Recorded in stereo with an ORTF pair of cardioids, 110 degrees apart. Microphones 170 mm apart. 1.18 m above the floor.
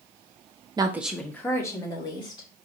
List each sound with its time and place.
0.8 s a woman speaking: 25° right, 0.7 m; by 2.5 s 25° left, 2.5 m